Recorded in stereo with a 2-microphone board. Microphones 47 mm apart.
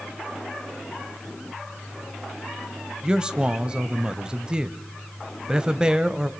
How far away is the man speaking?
About 1.0 m.